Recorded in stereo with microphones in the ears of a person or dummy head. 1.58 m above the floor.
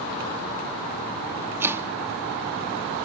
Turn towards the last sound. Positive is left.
turn(degrees=-15)  # may be behind; listen again after turning